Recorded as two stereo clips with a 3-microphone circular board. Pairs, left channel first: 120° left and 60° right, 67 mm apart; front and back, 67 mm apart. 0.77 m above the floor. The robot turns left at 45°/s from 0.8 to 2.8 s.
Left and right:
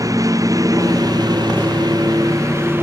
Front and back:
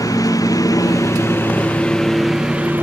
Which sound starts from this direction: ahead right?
A lawn mower, at 0.0 s.